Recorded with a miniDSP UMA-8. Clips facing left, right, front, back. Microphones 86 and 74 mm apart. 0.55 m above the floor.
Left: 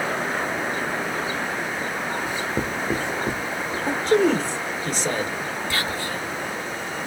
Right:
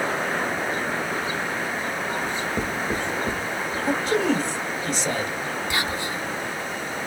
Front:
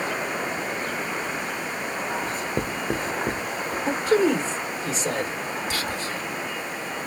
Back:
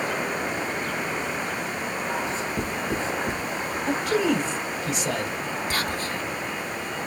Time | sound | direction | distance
2.2 | writing | 15° left | 1.1 m
3.9 | a man speaking | 50° left | 1.7 m
5.7 | whispering | 155° right | 1.0 m